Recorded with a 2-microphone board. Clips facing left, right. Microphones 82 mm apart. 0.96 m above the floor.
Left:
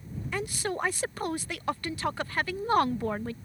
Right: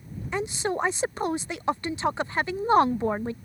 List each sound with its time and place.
0.3 s a woman speaking: 25° right (ahead or behind)